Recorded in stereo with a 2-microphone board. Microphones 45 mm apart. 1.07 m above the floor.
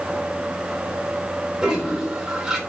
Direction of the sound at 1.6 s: 15° right (ahead or behind).